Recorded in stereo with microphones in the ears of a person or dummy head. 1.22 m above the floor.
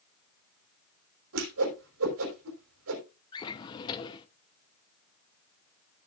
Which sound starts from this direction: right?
A whoosh, at 1.3 s.